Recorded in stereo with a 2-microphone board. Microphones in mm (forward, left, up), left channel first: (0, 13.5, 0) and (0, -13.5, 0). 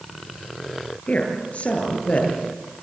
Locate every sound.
1.1 s a woman speaking: 50° left (ahead or behind), 8 m